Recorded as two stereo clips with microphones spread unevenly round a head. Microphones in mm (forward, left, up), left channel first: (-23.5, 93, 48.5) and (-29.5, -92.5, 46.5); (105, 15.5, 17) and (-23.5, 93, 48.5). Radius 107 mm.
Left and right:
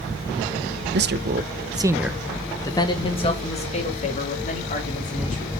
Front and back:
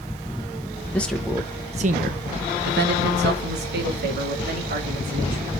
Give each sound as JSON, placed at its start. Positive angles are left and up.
{"t": 0.9, "sound": "a man speaking", "azimuth_deg": -105, "distance_m": 0.9}